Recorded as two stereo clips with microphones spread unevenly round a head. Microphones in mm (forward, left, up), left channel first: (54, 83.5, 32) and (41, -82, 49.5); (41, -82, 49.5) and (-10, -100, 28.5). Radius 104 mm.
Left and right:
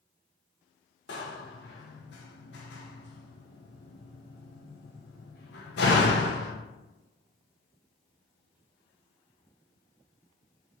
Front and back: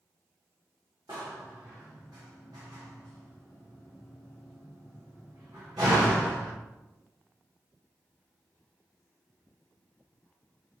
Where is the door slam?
125° left, 0.5 m.